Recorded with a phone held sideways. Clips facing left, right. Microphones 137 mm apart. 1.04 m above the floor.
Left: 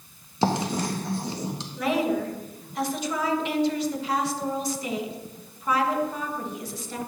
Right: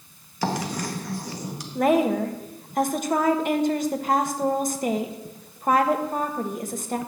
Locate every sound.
0.4 s writing: 25° left (ahead or behind), 1.5 m
1.8 s a woman speaking: 50° right (ahead or behind), 1.3 m